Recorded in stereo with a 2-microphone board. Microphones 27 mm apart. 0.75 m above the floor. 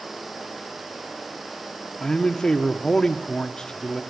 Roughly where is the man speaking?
Left.